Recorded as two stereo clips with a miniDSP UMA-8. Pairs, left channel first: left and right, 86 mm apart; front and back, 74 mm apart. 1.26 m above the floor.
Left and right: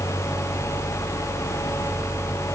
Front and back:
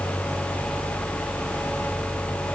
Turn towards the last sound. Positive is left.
No sound to turn to.